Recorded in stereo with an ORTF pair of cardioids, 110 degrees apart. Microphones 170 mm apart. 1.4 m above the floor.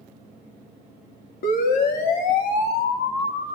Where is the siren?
65° left, 4 m; by 3.6 s 75° left, 3 m.